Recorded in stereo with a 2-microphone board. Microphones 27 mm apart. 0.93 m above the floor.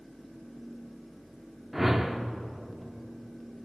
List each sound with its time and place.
1.7 s a whoosh: 5° right (ahead or behind), 0.6 m